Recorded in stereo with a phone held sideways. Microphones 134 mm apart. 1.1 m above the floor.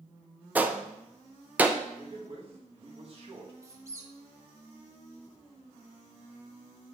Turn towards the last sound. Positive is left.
turn(degrees=-20)  # may be behind; listen again after turning